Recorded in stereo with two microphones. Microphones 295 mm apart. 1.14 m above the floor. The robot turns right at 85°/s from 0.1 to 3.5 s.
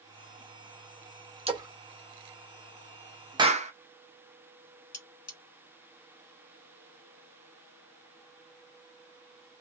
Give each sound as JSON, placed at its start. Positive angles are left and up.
{"t": 1.5, "sound": "a splash", "side_deg": -20, "distance_m": 0.7}
{"t": 3.4, "sound": "a clap", "side_deg": -15, "distance_m": 0.6}
{"t": 4.9, "sound": "cutlery clinking", "side_deg": 55, "distance_m": 1.4}